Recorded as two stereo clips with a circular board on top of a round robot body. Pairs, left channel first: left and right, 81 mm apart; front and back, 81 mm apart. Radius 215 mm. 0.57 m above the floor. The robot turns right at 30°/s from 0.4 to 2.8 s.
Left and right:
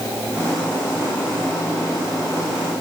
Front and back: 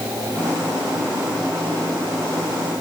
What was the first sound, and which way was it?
Only background noise.